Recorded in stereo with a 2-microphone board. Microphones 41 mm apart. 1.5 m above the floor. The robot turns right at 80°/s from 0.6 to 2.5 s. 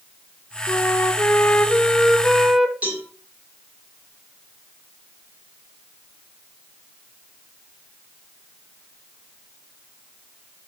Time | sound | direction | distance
0.7 | a flute | 55° left | 0.7 m
2.8 | a cowbell | 35° right (ahead or behind) | 3 m